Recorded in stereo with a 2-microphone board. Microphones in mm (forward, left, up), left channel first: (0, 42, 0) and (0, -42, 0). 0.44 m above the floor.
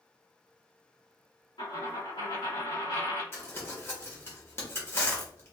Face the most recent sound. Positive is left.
turn(degrees=35)  # may be behind; listen again after turning